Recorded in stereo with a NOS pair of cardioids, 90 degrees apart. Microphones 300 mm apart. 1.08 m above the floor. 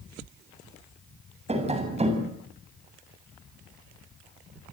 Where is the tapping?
20° right, 8 m.